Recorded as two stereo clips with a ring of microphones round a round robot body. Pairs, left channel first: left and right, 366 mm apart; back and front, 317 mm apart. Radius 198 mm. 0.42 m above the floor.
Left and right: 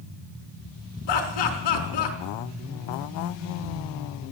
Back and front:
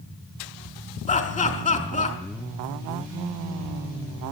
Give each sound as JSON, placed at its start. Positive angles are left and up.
{"t": 1.1, "sound": "laughter", "azimuth_deg": 105, "distance_m": 4.0}